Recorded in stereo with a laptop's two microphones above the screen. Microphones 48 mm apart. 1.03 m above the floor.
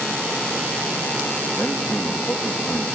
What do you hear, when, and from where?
1.5 s a man speaking: 55° left (ahead or behind), 1.5 m